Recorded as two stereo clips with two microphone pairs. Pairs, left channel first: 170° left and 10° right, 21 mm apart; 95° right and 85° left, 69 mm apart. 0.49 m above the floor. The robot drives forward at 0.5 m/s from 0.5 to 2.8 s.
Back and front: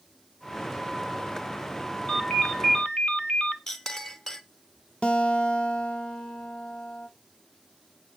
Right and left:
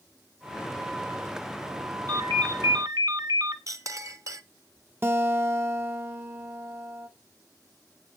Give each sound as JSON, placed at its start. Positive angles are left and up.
{"t": 2.1, "sound": "a ringtone", "azimuth_deg": 90, "distance_m": 1.2}
{"t": 3.7, "sound": "a clink", "azimuth_deg": 105, "distance_m": 0.7}
{"t": 5.0, "sound": "a guitar", "azimuth_deg": 135, "distance_m": 0.6}